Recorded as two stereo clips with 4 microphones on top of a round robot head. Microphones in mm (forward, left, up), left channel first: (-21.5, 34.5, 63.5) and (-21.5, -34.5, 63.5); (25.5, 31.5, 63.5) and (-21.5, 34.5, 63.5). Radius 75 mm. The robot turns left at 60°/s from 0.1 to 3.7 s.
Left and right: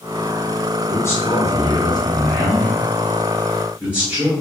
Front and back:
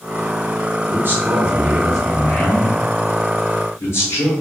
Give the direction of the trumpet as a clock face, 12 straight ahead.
No trumpet in this recording.